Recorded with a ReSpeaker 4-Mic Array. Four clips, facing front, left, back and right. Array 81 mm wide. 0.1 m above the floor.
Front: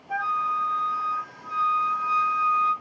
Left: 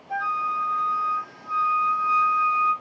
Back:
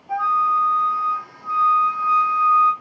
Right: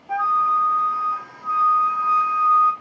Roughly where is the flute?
Behind right.